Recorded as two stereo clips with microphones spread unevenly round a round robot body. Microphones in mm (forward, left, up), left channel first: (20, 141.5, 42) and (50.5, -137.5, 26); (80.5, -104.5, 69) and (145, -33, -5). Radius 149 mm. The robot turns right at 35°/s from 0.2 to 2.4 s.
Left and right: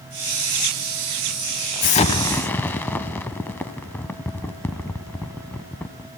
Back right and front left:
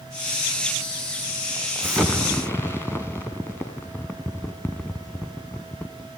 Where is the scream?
No scream in this recording.